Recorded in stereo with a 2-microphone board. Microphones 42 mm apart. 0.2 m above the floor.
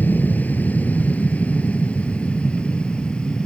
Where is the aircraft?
40° left (ahead or behind); by 3.5 s 20° left (ahead or behind).